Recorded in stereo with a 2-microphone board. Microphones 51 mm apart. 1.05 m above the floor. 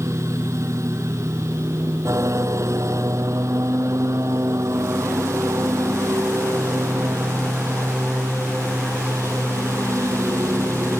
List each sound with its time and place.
0.0 s a lawn mower: 70° right (ahead or behind)